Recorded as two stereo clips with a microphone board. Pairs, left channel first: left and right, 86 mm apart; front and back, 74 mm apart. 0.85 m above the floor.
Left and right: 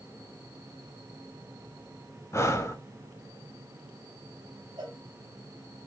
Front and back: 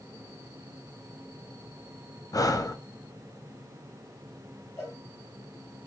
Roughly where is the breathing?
Ahead left.